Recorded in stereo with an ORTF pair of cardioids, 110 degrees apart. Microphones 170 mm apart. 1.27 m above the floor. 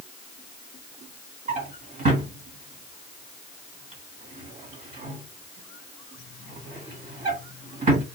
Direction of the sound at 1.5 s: 45° right.